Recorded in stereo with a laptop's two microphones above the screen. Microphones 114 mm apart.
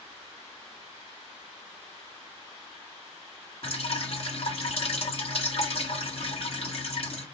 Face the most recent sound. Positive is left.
turn(degrees=60)  # may be behind; listen again after turning